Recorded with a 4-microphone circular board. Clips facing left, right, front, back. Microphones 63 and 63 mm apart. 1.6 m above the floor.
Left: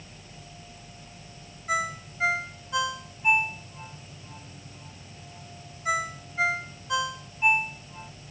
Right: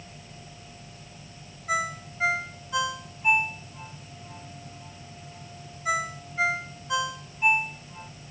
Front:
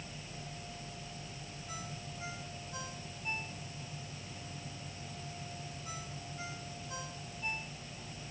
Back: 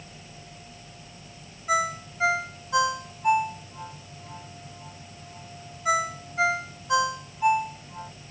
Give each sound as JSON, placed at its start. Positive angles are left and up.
{"t": 1.7, "sound": "a ringtone", "azimuth_deg": 180}